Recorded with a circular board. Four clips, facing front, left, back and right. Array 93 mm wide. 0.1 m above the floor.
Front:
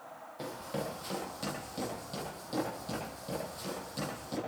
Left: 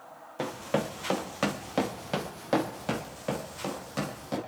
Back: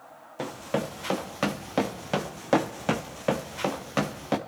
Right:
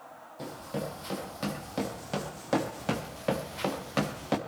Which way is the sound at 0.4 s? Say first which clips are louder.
Left 6 dB, back 8 dB; 130° left.